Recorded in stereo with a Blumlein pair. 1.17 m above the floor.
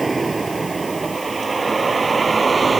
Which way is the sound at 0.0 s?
10° right.